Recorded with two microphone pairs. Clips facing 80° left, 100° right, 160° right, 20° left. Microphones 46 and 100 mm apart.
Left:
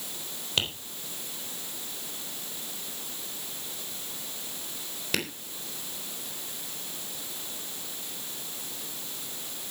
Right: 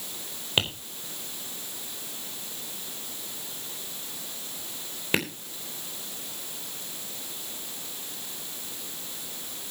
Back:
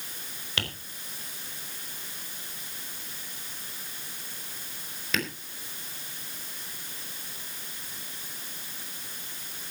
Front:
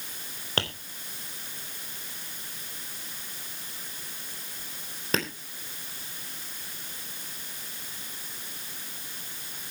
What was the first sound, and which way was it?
Tapping, 35° right.